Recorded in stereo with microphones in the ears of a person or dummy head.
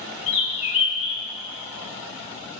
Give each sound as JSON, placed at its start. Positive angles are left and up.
{"t": 0.3, "sound": "a bird", "side_deg": 40, "distance_m": 1.0}